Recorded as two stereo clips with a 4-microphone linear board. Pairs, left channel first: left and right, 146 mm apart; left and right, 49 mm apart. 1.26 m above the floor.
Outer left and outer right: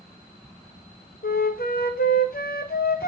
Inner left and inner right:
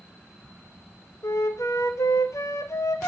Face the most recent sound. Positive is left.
turn(degrees=80)